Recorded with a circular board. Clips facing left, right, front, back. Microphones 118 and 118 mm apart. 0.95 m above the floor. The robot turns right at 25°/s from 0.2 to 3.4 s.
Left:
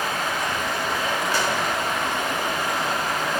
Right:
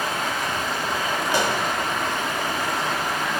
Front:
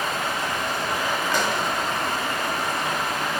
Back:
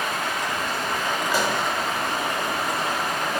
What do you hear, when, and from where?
0.0 s running water: 55° left, 2 m; by 3.4 s 135° left, 2 m
1.3 s a pop: 105° right, 0.6 m; by 1.6 s 100° right, 0.6 m